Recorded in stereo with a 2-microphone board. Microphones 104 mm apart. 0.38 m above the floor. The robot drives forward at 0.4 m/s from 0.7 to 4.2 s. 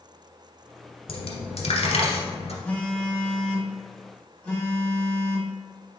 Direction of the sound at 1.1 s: 65° left (ahead or behind).